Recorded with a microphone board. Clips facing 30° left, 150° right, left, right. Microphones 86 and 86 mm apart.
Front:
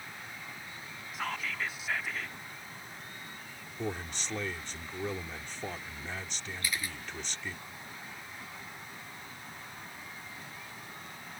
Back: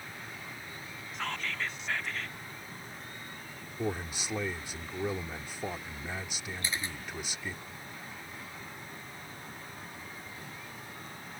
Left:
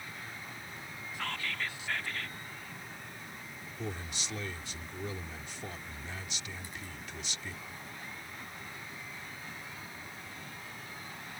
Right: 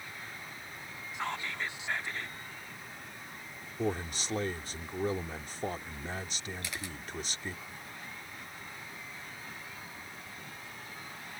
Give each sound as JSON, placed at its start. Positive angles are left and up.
{"t": 1.1, "sound": "whispering", "azimuth_deg": -50}
{"t": 3.8, "sound": "a man speaking", "azimuth_deg": -75}
{"t": 6.6, "sound": "a camera shutter", "azimuth_deg": -85}